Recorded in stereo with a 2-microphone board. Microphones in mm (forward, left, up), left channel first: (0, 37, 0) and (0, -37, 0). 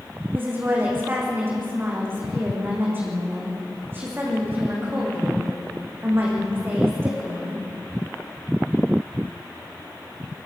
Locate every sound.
0.3 s a woman speaking: 30° right (ahead or behind), 8.5 m